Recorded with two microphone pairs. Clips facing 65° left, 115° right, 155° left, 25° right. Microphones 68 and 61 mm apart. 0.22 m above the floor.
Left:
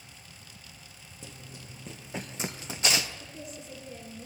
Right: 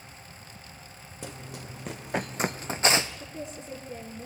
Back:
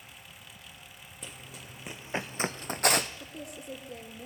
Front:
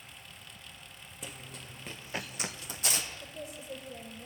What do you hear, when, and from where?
1.2 s running footsteps: 110° right, 1.0 m; by 3.1 s straight behind, 0.8 m
3.2 s a woman speaking: 175° right, 4 m